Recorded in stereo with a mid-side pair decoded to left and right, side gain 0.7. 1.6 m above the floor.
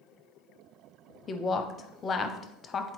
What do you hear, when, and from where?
1.3 s a woman speaking: 30° left, 0.6 m